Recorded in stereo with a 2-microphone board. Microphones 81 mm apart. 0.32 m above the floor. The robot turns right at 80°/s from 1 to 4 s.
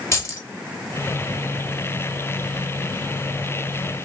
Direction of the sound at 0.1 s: 35° left (ahead or behind).